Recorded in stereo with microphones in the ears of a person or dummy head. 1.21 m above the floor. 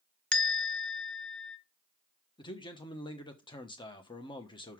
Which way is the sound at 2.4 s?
20° left (ahead or behind).